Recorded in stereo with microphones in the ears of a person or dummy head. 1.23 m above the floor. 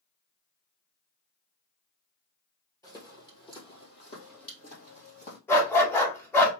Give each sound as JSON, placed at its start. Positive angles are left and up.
{"t": 2.8, "sound": "footsteps", "side_deg": 25, "distance_m": 1.8}
{"t": 5.5, "sound": "a dog barking", "side_deg": 20, "distance_m": 1.3}